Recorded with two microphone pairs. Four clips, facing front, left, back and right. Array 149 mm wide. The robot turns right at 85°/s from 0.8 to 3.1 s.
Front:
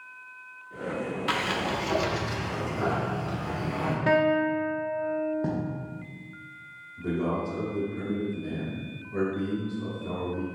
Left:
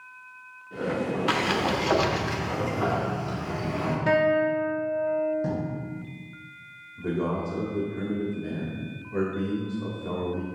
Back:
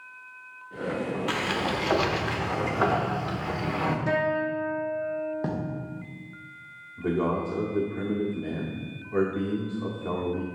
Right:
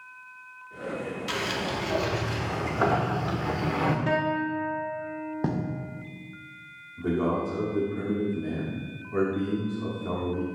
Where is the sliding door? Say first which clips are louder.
Left 5 dB, front 1 dB; 80° left, 0.7 m; by 4.0 s 125° right, 0.7 m.